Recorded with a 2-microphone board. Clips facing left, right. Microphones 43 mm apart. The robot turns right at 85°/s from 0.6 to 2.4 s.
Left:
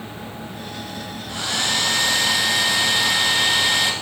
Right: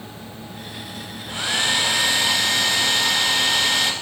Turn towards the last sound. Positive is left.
turn(degrees=5)  # may be behind; listen again after turning